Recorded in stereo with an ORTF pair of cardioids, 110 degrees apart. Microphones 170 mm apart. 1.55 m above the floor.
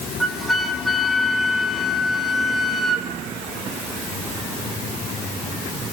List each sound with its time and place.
0.2 s a flute: straight ahead, 3 m